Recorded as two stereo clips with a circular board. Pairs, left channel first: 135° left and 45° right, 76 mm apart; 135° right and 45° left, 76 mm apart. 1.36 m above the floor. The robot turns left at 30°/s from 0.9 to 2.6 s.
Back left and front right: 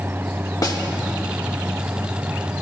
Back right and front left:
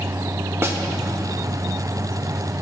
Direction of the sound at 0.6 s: 100° left.